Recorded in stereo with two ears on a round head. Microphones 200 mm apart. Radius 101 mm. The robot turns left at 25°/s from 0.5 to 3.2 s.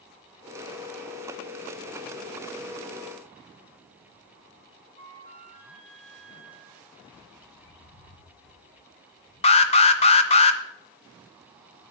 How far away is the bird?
About 1.9 m.